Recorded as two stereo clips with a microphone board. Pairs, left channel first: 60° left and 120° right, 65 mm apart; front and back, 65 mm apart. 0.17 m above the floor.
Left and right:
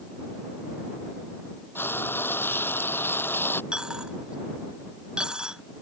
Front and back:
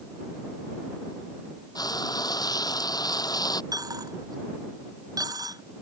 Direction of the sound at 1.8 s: 5° left.